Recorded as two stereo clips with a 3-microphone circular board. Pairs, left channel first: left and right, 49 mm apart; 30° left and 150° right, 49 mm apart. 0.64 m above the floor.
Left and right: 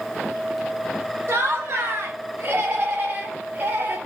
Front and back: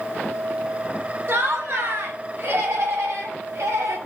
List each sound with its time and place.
1.3 s laughter: 120° right, 3.5 m; by 4.0 s 140° right, 4.5 m